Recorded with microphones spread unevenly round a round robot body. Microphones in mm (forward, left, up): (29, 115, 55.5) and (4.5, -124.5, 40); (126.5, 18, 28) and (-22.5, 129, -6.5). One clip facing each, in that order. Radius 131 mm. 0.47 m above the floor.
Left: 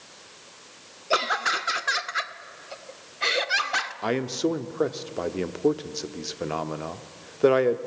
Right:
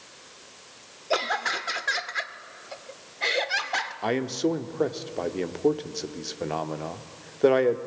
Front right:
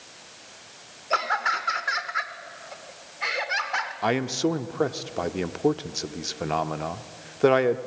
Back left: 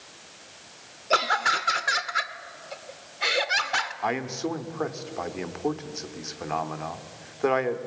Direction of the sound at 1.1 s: 165° left.